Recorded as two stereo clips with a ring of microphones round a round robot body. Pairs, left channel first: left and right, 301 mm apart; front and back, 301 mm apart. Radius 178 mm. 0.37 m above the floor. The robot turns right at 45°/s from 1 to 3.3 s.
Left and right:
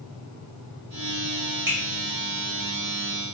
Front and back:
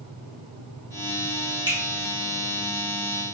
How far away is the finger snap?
About 1.5 m.